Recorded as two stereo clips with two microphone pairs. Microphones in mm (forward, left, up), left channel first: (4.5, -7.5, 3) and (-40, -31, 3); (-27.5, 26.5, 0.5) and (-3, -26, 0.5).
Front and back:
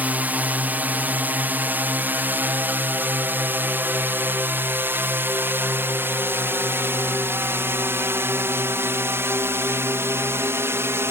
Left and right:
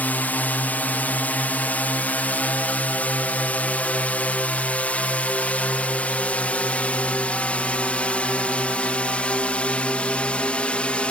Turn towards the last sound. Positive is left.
turn(degrees=-175)